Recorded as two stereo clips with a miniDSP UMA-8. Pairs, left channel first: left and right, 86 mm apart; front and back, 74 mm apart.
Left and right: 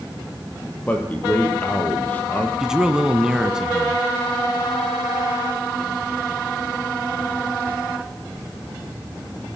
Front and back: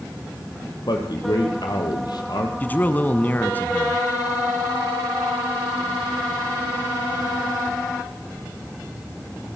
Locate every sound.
0.9 s a man speaking: 20° left, 5 m
2.6 s a man speaking: 15° right, 1.6 m